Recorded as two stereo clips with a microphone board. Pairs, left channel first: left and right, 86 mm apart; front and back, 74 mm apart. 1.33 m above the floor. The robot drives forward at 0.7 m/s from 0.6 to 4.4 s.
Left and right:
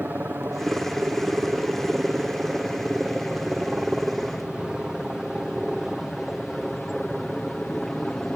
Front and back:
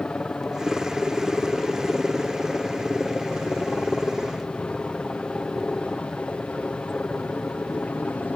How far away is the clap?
No clap in this recording.